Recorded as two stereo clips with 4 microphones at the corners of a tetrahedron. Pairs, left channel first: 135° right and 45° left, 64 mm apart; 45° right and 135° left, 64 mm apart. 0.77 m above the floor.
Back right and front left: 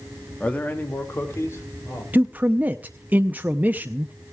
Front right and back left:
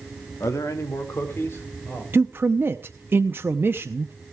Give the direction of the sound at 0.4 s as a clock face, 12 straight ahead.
2 o'clock.